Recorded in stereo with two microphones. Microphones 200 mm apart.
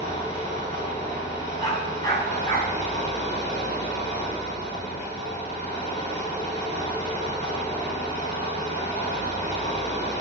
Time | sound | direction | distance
0.0 | an engine running | 35° left (ahead or behind) | 7 m
1.6 | a dog barking | 20° left (ahead or behind) | 4 m